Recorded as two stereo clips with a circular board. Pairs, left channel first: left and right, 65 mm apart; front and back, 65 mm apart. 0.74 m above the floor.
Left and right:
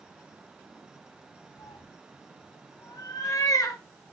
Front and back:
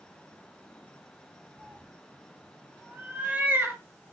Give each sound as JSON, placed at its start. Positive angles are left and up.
{"t": 1.6, "sound": "a cat meowing", "azimuth_deg": 100, "distance_m": 2.5}